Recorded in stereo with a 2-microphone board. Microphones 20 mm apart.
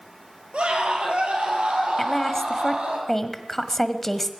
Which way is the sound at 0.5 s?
75° right (ahead or behind).